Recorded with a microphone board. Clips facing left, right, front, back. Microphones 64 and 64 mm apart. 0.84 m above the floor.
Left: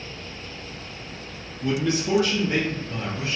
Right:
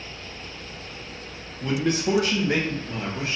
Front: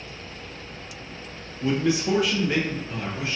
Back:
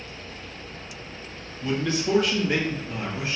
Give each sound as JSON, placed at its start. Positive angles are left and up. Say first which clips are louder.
{"t": 1.6, "sound": "a man speaking", "louder": "even, front 3 dB", "azimuth_deg": -60, "distance_m": 0.9}